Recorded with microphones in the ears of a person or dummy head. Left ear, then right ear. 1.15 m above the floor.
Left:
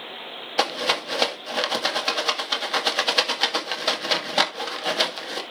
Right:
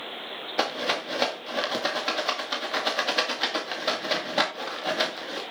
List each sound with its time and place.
0.6 s a rattle: 20° left (ahead or behind), 2.0 m